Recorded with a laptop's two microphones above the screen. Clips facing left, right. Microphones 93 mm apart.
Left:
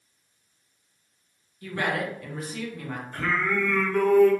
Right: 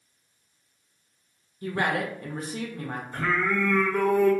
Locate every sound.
1.6 s a woman speaking: 30° right (ahead or behind), 0.7 m
3.1 s singing: 10° right (ahead or behind), 0.6 m